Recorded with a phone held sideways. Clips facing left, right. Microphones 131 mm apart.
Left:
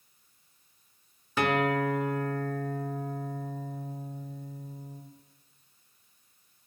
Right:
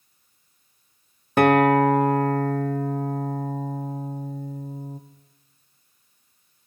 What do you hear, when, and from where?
1.4 s a guitar: 55° right (ahead or behind), 0.6 m